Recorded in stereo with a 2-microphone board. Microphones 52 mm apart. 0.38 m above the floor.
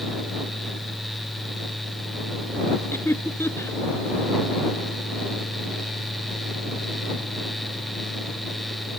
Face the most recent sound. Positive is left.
turn(degrees=50)  # may be behind; listen again after turning